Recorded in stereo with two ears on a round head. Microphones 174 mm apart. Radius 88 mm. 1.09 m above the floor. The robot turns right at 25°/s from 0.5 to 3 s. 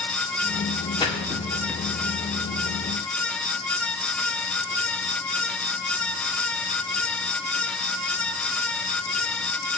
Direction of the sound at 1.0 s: 25° left (ahead or behind).